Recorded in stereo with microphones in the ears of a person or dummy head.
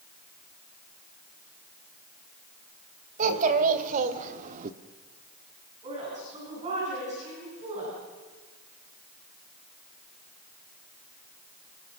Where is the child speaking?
45° right (ahead or behind), 3 m.